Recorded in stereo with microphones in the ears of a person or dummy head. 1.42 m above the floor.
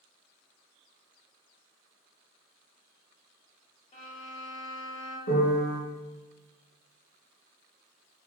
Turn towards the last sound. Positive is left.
turn(degrees=60)  # may be behind; listen again after turning